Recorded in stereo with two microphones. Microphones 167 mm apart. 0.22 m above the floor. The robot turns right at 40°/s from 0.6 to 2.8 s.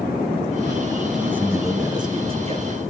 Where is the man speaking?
175° right, 1.3 m; by 2.8 s 110° right, 1.3 m.